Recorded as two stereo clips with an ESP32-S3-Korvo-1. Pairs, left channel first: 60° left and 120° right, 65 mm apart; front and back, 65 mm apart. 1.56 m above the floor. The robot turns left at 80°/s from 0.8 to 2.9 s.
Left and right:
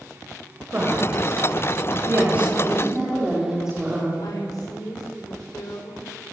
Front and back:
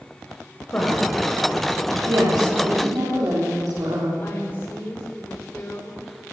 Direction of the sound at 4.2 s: 60° left.